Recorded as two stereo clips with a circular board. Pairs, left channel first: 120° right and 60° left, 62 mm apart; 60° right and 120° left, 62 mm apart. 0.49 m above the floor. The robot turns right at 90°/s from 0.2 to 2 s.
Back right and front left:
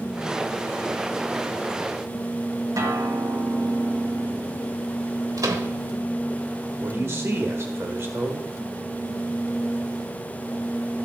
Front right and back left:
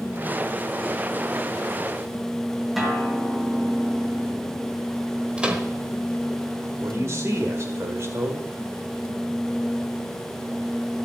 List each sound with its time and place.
2.8 s a guitar: 35° left, 1.9 m
5.4 s a microwave: 50° left, 1.3 m
6.8 s a man speaking: 95° left, 1.5 m